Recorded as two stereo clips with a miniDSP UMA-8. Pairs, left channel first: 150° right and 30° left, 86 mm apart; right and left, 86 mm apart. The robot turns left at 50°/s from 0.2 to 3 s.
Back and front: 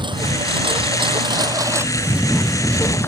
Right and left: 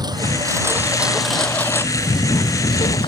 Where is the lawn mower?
55° left; by 3.1 s 85° right.